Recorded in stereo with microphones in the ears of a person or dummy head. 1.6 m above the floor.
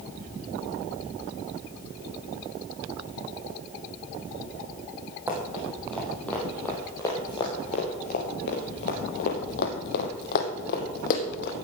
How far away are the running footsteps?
About 3.5 m.